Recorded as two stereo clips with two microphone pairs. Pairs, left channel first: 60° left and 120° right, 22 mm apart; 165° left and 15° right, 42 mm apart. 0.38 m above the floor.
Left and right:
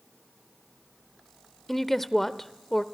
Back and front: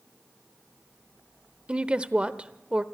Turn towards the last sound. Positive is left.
turn(degrees=-10)